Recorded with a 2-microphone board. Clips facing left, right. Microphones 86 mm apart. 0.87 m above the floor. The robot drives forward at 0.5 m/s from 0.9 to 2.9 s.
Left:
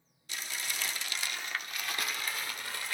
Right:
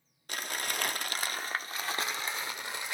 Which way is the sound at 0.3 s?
55° right (ahead or behind).